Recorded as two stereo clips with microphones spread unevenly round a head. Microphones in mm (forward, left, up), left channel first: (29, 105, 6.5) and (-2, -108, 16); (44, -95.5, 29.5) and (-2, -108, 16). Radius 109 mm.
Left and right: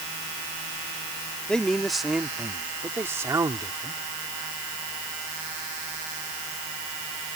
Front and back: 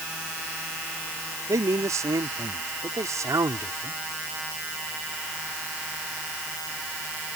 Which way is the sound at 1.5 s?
170° left.